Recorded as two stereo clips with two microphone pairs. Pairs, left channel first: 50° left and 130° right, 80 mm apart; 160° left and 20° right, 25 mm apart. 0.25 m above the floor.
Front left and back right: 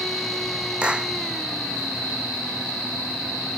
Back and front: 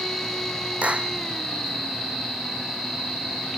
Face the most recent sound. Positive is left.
turn(degrees=-55)